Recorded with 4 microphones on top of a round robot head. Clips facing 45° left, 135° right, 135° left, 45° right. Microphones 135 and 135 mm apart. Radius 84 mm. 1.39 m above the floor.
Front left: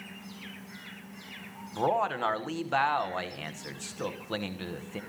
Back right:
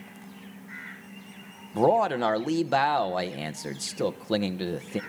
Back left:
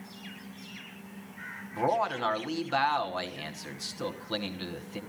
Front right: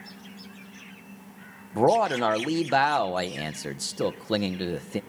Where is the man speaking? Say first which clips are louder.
Back right 6 dB, front right 7 dB; 80° right, 1.1 m.